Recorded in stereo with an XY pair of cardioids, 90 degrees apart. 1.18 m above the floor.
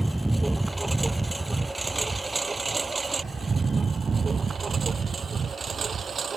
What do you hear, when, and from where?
0.0 s a lawn mower: 5° right; by 6.4 s 50° right